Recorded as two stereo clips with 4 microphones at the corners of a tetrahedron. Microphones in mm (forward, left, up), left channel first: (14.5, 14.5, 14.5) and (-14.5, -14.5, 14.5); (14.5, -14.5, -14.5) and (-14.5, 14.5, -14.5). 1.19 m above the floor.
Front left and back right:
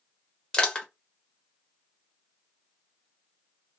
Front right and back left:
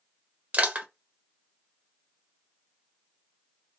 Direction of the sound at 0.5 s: 100° left.